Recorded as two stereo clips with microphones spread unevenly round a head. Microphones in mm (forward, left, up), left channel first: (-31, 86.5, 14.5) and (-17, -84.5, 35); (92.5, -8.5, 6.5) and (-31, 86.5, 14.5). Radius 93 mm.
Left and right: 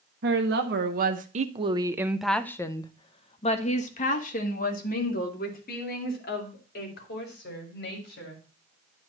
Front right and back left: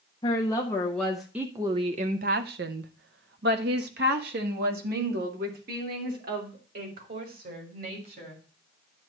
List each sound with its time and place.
0.2 s a woman speaking: 105° right, 1.1 m; by 8.4 s 120° left, 3.5 m